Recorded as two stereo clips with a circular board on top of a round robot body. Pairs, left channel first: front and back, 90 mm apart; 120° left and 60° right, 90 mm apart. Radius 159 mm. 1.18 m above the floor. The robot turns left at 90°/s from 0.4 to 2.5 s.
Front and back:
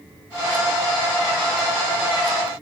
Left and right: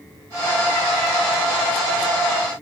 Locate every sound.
Only background noise.